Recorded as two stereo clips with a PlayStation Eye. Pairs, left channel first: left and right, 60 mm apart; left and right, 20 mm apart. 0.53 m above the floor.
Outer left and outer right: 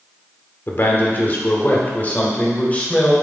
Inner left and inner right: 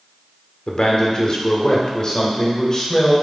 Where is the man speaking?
40° left (ahead or behind), 1.7 m; by 3.1 s 25° left (ahead or behind), 2.5 m.